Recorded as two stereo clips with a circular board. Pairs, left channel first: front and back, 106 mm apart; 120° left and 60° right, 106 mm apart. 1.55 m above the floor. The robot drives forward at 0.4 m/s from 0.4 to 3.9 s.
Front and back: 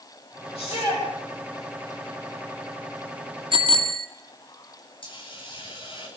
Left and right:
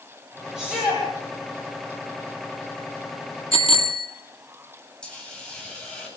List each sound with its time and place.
0.6 s a shout: 25° left, 10 m
3.5 s a bicycle bell: 140° left, 2.5 m; by 4.1 s 145° left, 2.5 m
5.0 s a hiss: 35° left, 9.5 m